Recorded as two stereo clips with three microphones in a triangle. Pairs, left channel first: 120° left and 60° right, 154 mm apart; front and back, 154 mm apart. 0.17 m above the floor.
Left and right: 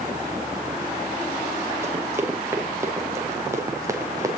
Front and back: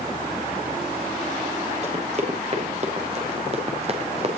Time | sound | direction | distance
1.8 | running footsteps | 135° right | 6 m